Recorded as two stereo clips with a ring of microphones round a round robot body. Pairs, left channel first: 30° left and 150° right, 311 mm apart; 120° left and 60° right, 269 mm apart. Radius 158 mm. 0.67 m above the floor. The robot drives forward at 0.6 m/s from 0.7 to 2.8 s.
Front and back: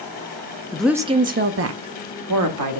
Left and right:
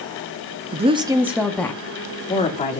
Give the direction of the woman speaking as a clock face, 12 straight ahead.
2 o'clock.